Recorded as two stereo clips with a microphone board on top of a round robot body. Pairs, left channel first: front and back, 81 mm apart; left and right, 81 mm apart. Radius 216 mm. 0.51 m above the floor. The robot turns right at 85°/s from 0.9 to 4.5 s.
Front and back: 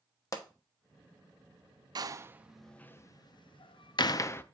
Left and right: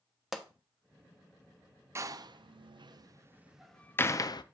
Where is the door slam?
145° right, 0.5 m; by 4.4 s 65° left, 0.5 m.